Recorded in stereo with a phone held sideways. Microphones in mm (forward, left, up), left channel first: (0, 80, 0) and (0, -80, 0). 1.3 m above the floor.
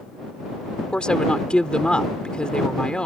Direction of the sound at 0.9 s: 5° left (ahead or behind).